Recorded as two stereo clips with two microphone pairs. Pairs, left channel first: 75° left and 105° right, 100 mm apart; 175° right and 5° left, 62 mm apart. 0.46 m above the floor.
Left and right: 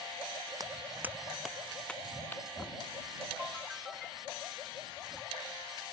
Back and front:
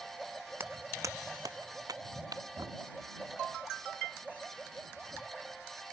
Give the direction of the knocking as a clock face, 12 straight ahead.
12 o'clock.